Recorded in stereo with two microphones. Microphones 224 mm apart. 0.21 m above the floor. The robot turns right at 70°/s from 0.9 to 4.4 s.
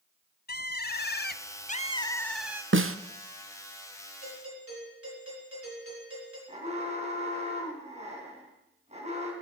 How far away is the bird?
About 0.5 m.